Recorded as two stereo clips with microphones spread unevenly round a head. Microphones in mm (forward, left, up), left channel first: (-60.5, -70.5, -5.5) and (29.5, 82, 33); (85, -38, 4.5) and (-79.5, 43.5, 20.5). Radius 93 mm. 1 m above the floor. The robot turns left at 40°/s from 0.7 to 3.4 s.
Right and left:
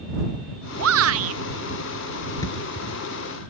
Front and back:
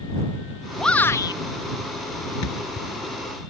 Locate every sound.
0.8 s a shout: 60° left; by 1.4 s 40° left
2.4 s a thud: 45° right; by 2.9 s 65° right